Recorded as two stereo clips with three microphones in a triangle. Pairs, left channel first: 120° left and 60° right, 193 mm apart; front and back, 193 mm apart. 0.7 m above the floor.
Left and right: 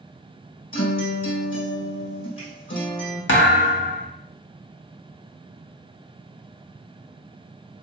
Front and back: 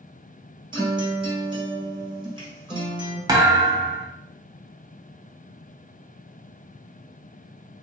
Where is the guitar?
115° left, 1.6 m.